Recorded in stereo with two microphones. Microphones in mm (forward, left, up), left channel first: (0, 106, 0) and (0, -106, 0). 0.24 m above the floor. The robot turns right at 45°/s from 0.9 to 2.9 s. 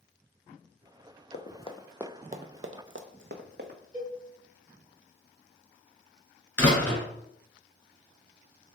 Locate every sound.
1.3 s running footsteps: 50° left (ahead or behind), 0.7 m; by 3.8 s 50° right (ahead or behind), 1.0 m
3.9 s a cowbell: 35° right (ahead or behind), 1.2 m
6.6 s a door slam: 10° left (ahead or behind), 1.9 m